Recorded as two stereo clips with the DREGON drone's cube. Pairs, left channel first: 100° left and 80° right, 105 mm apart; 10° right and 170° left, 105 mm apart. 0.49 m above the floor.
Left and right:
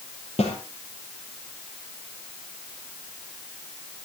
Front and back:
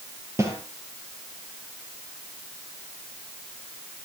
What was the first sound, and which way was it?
A snare drum, 105° left.